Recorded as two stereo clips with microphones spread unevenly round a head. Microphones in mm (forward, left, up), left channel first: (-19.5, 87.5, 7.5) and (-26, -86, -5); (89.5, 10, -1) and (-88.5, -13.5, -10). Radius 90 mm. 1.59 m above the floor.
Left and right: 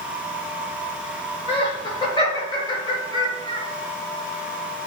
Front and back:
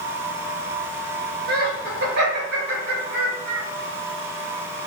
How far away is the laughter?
About 1.8 m.